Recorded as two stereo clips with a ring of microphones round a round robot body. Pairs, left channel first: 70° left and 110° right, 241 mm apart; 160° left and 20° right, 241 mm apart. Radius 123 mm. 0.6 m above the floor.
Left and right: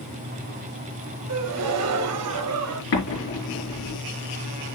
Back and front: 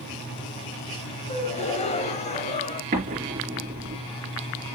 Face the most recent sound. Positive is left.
turn(degrees=35)